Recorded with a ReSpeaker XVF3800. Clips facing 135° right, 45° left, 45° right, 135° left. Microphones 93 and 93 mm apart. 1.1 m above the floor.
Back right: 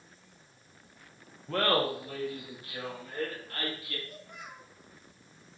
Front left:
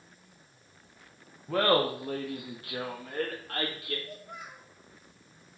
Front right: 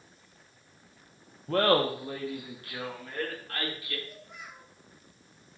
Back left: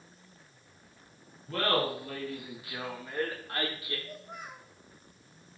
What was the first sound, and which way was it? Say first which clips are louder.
Laughter: front left 3 dB, front right 5 dB; 40° right.